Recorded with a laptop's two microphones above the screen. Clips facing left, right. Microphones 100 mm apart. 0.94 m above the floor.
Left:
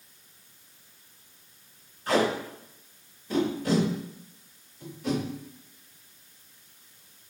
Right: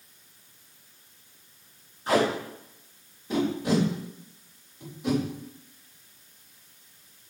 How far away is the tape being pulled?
About 3 m.